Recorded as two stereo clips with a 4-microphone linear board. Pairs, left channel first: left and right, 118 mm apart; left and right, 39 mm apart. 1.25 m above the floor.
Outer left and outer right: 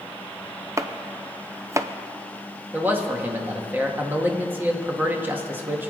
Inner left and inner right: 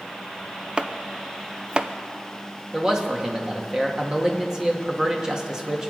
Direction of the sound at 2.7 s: 20° right (ahead or behind).